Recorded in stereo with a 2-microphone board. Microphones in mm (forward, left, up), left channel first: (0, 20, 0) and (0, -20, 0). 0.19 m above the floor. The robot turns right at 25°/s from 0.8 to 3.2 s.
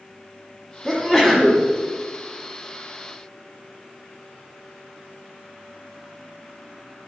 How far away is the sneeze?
About 1.3 m.